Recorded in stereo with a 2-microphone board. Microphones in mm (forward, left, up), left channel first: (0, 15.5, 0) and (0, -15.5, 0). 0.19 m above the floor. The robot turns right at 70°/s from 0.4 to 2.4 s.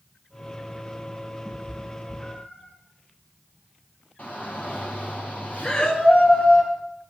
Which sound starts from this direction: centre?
A cat meowing, at 1.4 s.